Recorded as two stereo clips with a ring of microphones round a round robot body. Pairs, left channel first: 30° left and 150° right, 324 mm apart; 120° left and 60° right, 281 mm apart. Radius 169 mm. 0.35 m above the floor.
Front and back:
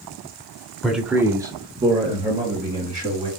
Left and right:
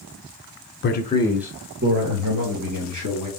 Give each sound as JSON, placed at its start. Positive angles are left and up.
{"t": 0.8, "sound": "a man speaking", "azimuth_deg": 120, "distance_m": 1.2}